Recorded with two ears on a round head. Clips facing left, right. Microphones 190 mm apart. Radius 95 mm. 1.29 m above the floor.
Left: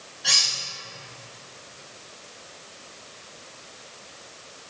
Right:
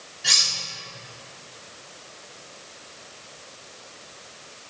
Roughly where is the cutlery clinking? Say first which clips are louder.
Even; right.